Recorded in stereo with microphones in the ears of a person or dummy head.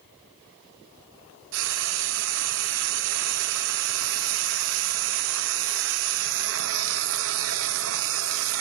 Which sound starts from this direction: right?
Frying, at 1.5 s.